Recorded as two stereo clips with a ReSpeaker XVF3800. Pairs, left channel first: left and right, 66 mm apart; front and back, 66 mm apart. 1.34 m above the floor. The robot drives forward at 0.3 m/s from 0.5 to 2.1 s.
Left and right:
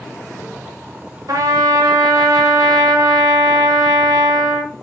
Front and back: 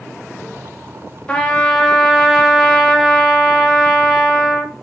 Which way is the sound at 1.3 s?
70° right.